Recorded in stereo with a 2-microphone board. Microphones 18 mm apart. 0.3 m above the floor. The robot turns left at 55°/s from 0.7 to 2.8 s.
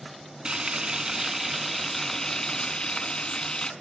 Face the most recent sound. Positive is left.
turn(degrees=120)